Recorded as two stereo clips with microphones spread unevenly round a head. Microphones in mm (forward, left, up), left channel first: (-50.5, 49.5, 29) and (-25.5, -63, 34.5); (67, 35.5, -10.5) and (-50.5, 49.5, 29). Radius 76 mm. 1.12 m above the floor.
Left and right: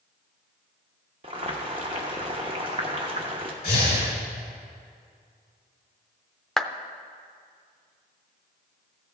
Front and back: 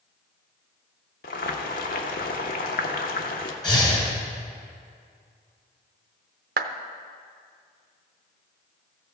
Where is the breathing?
55° left, 3 m.